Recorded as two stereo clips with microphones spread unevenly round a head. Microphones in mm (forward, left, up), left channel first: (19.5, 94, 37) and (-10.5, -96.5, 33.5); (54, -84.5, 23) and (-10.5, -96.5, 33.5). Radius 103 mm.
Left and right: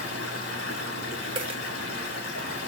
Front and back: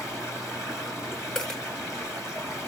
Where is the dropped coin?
70° right, 1.1 m.